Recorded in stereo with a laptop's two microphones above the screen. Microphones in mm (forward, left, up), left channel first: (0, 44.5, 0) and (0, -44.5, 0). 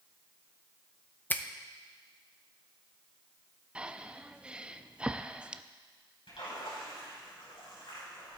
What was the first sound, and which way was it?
A finger snap, 20° left (ahead or behind).